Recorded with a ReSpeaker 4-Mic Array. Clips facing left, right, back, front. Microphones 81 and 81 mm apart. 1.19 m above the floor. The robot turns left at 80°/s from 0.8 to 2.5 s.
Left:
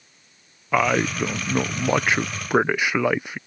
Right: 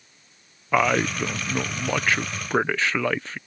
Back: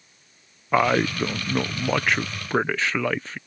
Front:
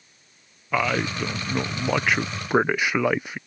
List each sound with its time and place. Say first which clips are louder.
0.7 s a man speaking: left 1 dB, back 4 dB; straight behind; by 3.4 s 45° left